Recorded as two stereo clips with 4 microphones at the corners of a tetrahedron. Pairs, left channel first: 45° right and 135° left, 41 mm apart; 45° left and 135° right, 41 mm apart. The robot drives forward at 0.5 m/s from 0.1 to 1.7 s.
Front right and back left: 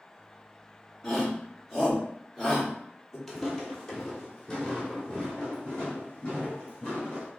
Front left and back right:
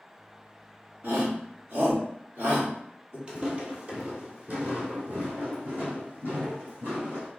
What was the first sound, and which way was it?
A shout, 120° right.